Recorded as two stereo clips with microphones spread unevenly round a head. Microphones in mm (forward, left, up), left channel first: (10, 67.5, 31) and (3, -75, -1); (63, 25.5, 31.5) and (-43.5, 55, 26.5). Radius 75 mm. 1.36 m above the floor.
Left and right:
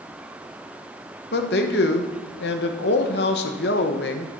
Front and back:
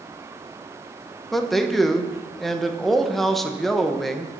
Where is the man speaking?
75° left, 1.1 m.